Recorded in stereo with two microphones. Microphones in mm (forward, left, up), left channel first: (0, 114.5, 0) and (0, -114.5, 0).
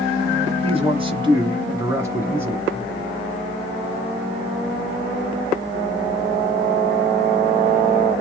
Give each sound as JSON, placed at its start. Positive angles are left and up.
{"t": 0.6, "sound": "a man speaking", "side_deg": -25, "distance_m": 1.3}